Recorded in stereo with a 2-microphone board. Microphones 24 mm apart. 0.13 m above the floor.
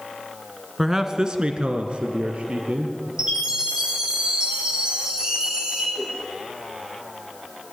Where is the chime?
30° right (ahead or behind), 6.5 m.